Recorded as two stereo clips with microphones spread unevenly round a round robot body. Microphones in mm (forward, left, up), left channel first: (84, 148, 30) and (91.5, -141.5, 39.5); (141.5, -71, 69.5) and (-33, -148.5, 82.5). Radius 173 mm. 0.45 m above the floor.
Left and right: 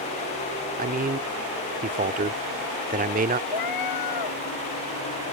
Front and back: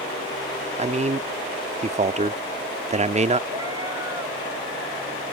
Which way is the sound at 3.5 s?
125° left.